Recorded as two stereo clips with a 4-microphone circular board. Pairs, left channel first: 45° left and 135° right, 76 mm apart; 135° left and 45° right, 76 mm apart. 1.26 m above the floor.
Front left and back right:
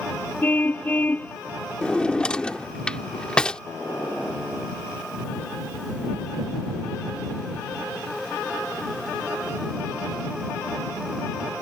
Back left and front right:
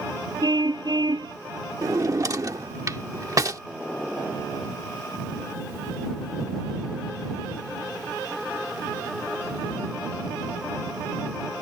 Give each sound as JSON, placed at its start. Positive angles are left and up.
{"t": 0.4, "sound": "a car horn", "azimuth_deg": -20}
{"t": 1.8, "sound": "a drawer", "azimuth_deg": -30}